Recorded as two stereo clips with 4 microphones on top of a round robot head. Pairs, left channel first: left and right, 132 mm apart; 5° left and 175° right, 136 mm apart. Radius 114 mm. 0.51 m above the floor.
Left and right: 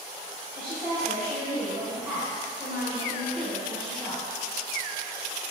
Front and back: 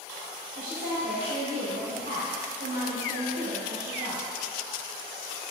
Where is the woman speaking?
165° right, 2.5 m.